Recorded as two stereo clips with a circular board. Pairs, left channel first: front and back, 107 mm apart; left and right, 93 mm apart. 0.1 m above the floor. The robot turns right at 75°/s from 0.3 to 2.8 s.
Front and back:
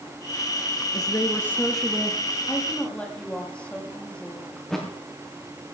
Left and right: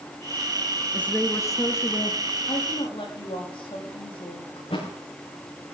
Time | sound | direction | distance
0.9 | a woman speaking | 20° left | 1.8 m
2.5 | a woman speaking | 55° left | 6.5 m
4.6 | a thud | 85° left | 5.5 m